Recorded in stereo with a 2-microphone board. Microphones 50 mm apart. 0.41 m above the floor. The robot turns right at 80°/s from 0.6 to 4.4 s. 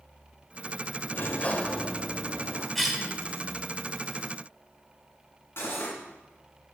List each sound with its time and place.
1.1 s a sliding door: 115° left, 0.8 m; by 2.6 s 120° right, 0.8 m
2.8 s a cough: 5° left (ahead or behind), 1.0 m; by 3.1 s 15° right (ahead or behind), 1.0 m
5.6 s cutlery clinking: 55° left (ahead or behind), 2.5 m